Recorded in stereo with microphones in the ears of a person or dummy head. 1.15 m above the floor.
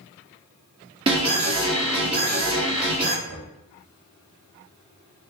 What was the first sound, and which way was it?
An alarm, 30° right (ahead or behind).